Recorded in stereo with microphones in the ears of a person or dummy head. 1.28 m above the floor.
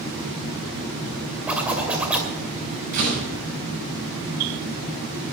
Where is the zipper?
10° right (ahead or behind), 2.5 m.